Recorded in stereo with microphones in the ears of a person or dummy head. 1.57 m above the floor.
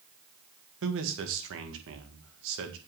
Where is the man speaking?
80° right, 1.8 m.